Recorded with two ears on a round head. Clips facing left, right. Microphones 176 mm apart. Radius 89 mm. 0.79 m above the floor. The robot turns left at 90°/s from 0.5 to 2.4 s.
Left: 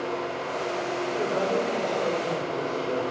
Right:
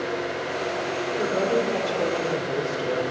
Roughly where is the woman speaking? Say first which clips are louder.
Right 3 dB; ahead.